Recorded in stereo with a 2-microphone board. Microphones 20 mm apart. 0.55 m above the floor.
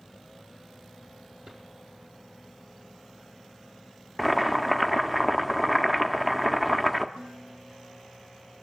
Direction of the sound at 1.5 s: 45° right (ahead or behind).